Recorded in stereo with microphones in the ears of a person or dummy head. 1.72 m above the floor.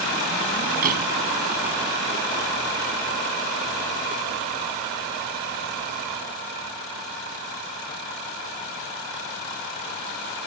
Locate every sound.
0.8 s a door slam: 45° right (ahead or behind)